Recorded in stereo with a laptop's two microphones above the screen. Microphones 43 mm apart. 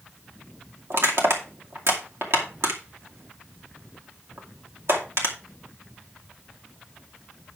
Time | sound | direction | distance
0.9 | crushing | 70° right (ahead or behind) | 2.5 m